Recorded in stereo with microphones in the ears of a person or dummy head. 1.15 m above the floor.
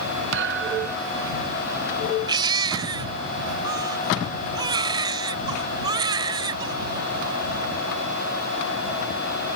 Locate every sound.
0.3 s a thud: 65° right (ahead or behind)
2.3 s a baby crying: 25° right (ahead or behind)